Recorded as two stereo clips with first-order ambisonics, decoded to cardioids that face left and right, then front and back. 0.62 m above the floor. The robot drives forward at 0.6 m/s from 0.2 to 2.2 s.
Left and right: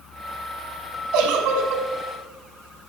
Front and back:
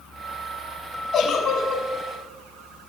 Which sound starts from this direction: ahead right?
A giggle, at 1.1 s.